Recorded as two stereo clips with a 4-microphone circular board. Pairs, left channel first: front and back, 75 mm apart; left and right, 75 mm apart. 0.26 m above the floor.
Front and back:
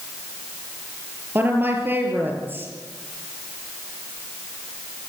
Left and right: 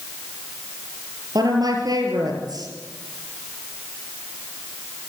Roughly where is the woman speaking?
Behind right.